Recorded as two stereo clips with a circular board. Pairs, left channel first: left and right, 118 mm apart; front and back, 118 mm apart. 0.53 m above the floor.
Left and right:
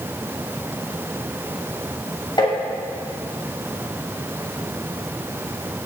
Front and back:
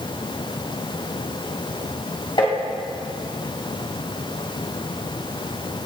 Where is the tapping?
45° left, 2.5 m.